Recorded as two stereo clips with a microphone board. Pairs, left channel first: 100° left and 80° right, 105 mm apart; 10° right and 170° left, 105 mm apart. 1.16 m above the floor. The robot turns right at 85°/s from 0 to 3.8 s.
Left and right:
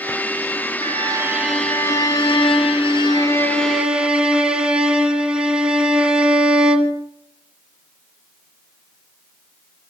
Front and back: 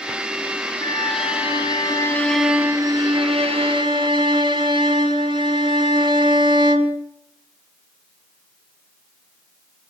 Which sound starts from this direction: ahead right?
A violin, at 0.8 s.